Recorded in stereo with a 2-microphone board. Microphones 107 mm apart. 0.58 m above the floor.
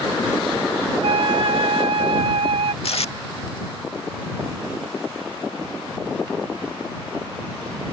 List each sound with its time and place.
1.0 s a flute: 60° right (ahead or behind)
2.8 s tape being pulled: 75° left (ahead or behind)